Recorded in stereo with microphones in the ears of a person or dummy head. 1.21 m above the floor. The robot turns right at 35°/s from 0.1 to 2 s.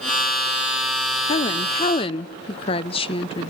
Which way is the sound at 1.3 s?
35° left (ahead or behind).